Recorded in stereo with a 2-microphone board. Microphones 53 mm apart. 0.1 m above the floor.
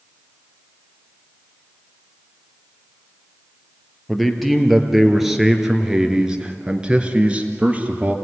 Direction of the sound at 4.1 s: Centre (ahead or behind).